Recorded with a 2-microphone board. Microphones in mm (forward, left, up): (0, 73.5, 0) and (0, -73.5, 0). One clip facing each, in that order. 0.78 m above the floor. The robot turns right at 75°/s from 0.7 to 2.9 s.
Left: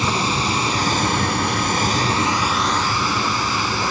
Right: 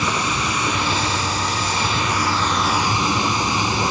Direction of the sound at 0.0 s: 35° left.